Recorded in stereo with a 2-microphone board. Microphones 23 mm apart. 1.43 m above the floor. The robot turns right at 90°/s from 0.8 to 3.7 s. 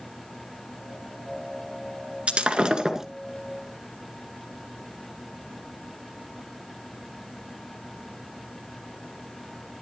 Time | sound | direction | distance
2.3 | breaking glass | 90° right | 2.0 m